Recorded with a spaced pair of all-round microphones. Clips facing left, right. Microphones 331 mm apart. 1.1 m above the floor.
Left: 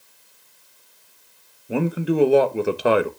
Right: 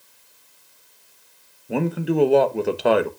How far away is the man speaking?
About 0.8 m.